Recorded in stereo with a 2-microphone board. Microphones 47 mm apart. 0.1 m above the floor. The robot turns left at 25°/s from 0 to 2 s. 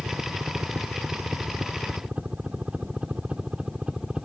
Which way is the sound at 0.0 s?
70° right (ahead or behind).